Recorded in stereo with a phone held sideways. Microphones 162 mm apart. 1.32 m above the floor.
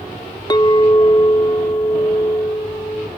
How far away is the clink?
About 0.6 m.